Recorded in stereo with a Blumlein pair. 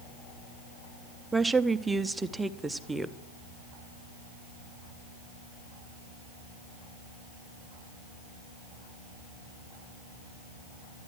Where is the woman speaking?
5° right, 0.5 m.